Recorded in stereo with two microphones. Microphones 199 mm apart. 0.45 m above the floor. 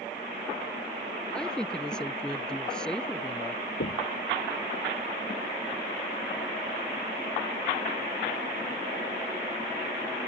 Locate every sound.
1.3 s a woman speaking: 5° left (ahead or behind)
3.8 s knocking: 85° left